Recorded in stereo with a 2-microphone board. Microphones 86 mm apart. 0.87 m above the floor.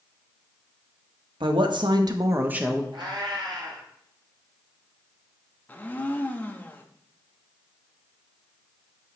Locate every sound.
1.4 s a woman speaking: 75° right (ahead or behind), 1.2 m; by 2.8 s centre (ahead or behind), 0.8 m
2.9 s a cat meowing: 65° right (ahead or behind), 2 m
5.7 s a blender: 20° left (ahead or behind), 0.7 m